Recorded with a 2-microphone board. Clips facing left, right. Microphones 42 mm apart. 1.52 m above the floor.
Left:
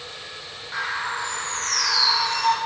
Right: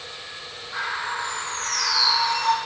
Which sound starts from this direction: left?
A bird, at 0.7 s.